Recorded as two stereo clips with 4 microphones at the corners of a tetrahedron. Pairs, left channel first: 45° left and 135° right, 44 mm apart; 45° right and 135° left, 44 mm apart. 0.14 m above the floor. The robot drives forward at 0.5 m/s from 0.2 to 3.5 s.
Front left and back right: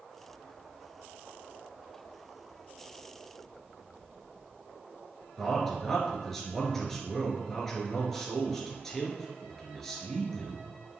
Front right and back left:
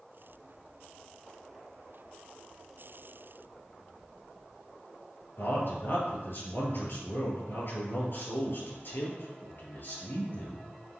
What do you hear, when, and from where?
5.4 s a man speaking: 35° right, 2.5 m